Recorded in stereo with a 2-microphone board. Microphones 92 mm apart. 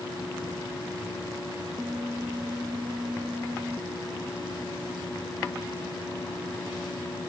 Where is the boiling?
I don't hear boiling.